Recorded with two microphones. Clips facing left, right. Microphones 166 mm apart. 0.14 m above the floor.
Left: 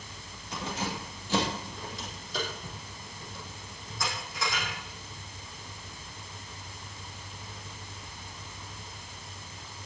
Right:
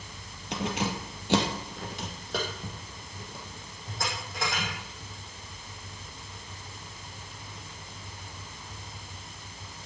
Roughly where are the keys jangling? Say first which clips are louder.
Right 4 dB; right.